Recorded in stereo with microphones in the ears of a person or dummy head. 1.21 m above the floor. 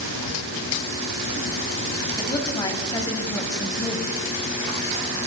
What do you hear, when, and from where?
2.2 s a woman speaking: 20° left (ahead or behind), 8.5 m